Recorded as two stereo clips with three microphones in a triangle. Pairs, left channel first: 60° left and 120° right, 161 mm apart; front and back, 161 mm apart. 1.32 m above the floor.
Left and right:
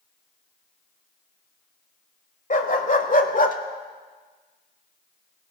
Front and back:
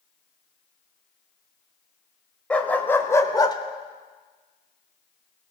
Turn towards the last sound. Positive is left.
turn(degrees=55)